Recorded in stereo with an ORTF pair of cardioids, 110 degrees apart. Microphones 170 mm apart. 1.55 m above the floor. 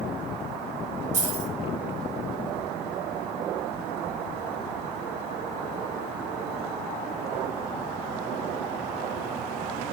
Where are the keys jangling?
45° right, 1.9 m.